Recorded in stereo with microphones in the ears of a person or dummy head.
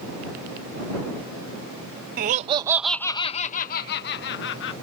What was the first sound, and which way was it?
Laughter, 50° right (ahead or behind).